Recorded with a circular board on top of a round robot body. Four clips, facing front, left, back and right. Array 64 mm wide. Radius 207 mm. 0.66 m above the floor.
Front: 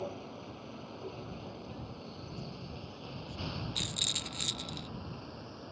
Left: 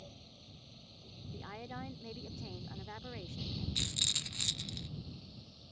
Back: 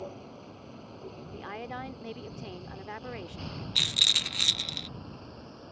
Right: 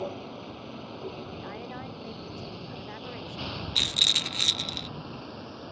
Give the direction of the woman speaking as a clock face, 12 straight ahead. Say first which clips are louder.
Right 7 dB, back 7 dB; 5 o'clock.